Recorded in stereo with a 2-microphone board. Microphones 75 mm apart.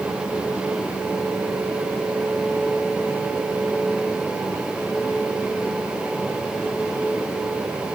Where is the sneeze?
No sneeze in this recording.